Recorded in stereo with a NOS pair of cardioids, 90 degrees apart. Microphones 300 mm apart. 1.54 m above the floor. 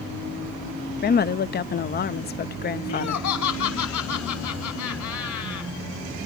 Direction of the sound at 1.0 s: 35° left.